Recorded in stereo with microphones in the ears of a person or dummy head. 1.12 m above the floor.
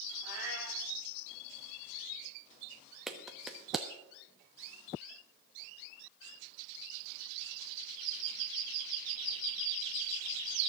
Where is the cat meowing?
55° left (ahead or behind), 7 m.